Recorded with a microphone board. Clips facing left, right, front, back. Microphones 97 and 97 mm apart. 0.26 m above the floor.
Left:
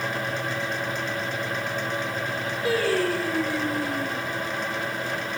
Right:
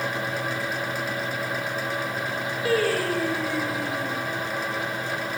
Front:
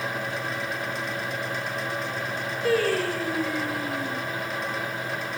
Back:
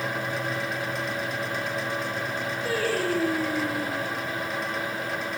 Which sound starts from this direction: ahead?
Singing, at 2.6 s.